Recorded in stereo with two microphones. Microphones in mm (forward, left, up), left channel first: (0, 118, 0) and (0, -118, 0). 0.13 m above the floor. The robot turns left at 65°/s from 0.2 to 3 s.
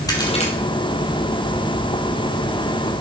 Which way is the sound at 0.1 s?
15° left (ahead or behind).